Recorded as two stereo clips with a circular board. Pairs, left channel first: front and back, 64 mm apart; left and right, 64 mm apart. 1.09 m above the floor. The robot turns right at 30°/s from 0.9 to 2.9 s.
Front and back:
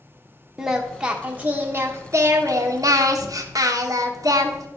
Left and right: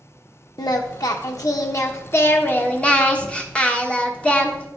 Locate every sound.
0.6 s singing: 100° left, 1.1 m; by 4.7 s 160° left, 1.1 m